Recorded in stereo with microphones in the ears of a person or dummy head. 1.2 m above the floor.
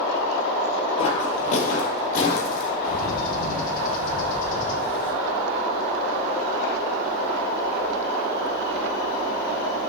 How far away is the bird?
About 1.8 m.